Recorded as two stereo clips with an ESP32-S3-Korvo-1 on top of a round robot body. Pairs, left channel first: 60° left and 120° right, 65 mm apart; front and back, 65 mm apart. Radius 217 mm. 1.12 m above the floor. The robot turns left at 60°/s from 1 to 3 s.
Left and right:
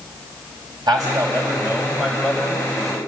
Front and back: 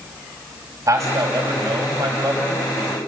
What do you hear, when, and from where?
0.9 s a man speaking: 135° right, 5.5 m; by 3.0 s 105° left, 5.5 m